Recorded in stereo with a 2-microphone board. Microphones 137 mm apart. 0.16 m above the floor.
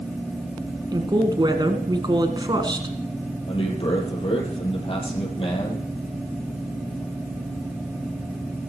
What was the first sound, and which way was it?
A woman speaking, 35° right (ahead or behind).